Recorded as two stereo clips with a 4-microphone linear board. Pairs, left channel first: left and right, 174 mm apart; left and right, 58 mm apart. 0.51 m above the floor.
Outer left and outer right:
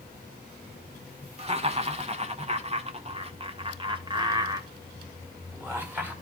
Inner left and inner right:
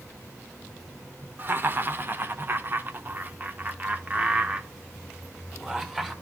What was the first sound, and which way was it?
Laughter, 35° right (ahead or behind).